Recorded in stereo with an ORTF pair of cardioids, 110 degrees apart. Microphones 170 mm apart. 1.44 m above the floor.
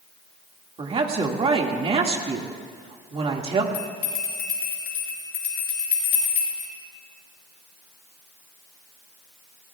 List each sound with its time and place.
0.8 s a woman speaking: 35° right, 2 m
3.7 s a bell: 65° left, 6.5 m